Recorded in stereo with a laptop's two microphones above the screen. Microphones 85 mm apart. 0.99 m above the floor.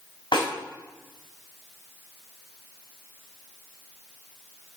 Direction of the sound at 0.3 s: 90° left.